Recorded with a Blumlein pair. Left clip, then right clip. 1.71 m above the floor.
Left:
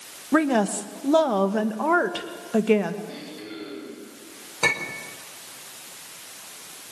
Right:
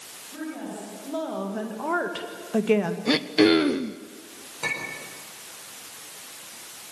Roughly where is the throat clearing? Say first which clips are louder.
Right 18 dB; ahead right.